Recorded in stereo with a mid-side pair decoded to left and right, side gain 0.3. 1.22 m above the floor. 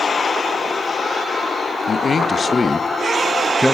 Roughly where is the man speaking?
Ahead left.